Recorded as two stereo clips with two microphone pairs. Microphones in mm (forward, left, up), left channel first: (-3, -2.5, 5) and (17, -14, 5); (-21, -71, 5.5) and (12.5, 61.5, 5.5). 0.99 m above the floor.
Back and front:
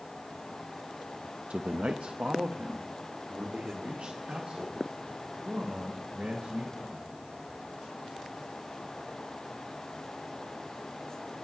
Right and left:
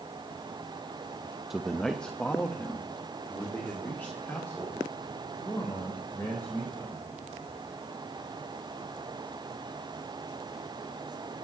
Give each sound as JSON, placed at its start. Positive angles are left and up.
{"t": 1.5, "sound": "a man speaking", "azimuth_deg": -10, "distance_m": 0.5}